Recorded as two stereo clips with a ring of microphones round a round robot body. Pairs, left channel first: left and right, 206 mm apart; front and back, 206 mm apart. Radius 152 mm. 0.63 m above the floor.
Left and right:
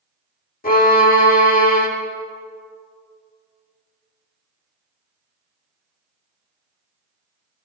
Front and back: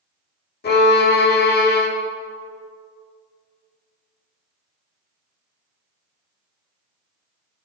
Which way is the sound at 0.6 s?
40° left.